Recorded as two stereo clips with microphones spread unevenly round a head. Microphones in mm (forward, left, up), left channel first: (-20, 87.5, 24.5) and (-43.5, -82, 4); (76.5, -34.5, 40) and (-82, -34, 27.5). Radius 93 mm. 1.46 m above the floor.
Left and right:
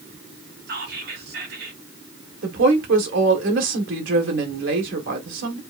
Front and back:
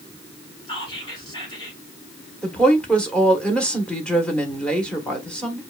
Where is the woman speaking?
85° right, 1.5 m.